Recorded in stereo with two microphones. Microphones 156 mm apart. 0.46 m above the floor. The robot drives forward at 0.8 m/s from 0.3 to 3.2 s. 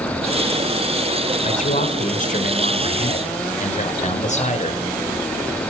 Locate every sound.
1.4 s a man speaking: 50° left (ahead or behind), 1.8 m; by 4.8 s 45° left (ahead or behind), 2.0 m